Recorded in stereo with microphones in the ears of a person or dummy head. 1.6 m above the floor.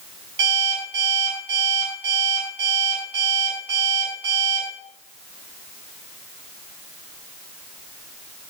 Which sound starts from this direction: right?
An alarm clock, at 0.4 s.